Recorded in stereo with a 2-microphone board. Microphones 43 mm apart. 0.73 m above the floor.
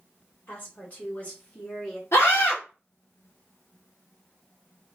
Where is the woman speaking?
40° left (ahead or behind), 1.9 m; by 2.0 s 10° left (ahead or behind), 1.4 m.